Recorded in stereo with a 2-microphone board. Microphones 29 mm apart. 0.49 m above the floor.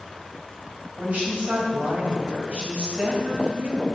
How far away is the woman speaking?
About 2.5 m.